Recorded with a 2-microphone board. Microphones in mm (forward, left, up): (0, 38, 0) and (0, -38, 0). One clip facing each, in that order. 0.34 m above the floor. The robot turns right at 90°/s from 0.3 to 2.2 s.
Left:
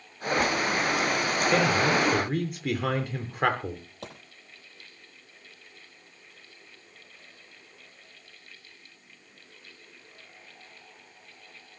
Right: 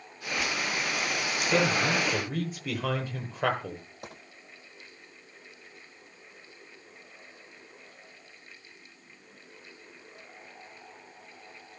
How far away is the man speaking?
About 7.5 m.